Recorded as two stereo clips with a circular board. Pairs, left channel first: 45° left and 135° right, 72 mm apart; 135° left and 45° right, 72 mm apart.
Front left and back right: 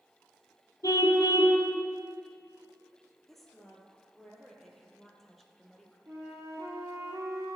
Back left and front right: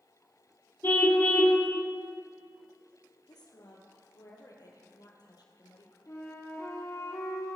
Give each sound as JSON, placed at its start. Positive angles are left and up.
{"t": 0.8, "sound": "a car horn", "azimuth_deg": 75, "distance_m": 2.0}
{"t": 3.3, "sound": "a woman speaking", "azimuth_deg": 135, "distance_m": 3.0}
{"t": 6.1, "sound": "a flute", "azimuth_deg": 180, "distance_m": 3.0}